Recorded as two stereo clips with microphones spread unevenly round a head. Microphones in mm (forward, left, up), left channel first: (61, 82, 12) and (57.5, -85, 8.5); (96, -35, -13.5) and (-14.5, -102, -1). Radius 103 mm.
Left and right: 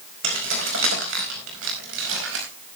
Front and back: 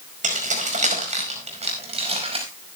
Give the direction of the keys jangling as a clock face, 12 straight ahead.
4 o'clock.